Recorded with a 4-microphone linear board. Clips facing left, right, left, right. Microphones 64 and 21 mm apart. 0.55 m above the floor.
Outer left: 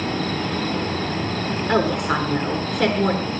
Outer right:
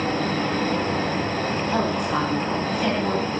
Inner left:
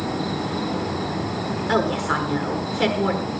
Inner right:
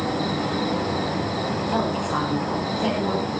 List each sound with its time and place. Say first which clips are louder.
0.0 s an insect: outer right 1 dB, inner right 1 dB; 10° right (ahead or behind), 4 m
1.7 s a woman speaking: outer left 5 dB, inner left 5 dB; 75° left (ahead or behind), 7 m